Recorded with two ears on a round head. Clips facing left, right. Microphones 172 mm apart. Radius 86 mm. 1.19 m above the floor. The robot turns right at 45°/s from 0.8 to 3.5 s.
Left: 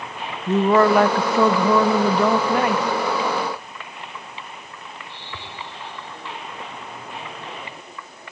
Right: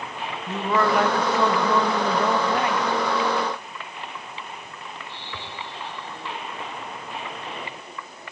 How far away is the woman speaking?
About 0.7 m.